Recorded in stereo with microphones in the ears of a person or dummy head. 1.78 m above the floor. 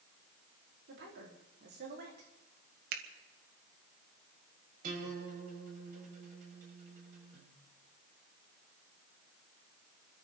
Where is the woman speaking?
65° right (ahead or behind), 4.5 m; by 2.3 s 50° right (ahead or behind), 4 m.